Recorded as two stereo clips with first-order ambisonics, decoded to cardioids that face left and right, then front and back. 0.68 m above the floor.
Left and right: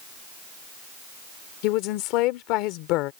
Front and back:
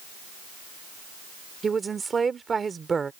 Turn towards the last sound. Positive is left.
turn(degrees=105)